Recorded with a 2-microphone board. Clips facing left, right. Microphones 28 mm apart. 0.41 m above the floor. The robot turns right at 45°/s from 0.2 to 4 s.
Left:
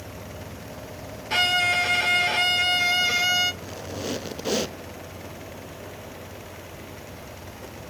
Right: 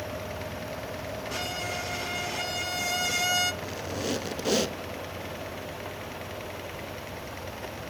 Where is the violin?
65° left, 0.7 m; by 3.5 s 165° left, 0.7 m.